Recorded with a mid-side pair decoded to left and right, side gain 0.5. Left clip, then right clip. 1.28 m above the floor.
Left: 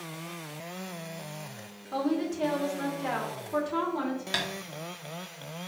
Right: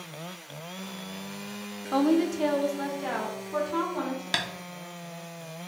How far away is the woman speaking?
About 0.5 m.